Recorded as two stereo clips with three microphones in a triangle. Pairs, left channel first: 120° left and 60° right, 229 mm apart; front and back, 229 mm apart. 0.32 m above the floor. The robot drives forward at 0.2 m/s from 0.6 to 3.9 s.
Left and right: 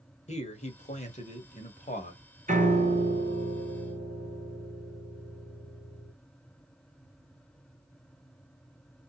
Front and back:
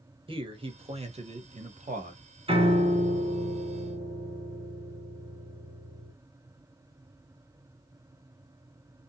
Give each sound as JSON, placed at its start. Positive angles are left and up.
{"t": 0.3, "sound": "a man speaking", "azimuth_deg": 135, "distance_m": 0.9}
{"t": 2.5, "sound": "a piano", "azimuth_deg": -110, "distance_m": 0.9}